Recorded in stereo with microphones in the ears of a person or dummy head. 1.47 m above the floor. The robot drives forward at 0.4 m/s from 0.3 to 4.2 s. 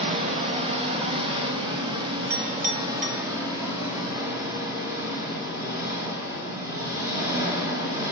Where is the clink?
50° right (ahead or behind), 0.9 m; by 3.2 s 40° right (ahead or behind), 1.1 m.